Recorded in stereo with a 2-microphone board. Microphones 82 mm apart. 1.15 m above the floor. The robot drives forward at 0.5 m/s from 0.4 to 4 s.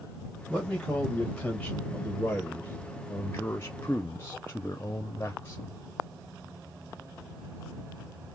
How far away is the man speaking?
About 1.8 m.